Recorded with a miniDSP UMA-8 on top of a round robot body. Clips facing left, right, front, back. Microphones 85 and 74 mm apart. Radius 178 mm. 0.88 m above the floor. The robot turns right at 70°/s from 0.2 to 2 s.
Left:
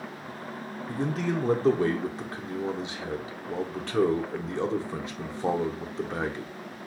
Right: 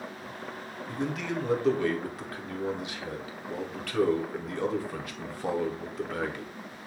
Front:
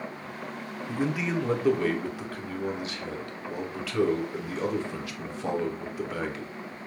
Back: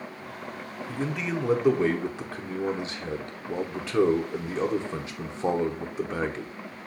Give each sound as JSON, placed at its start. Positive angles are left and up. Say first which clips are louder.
{"t": 0.9, "sound": "a man speaking", "louder": "left 3 dB, front 2 dB", "azimuth_deg": 60, "distance_m": 1.0}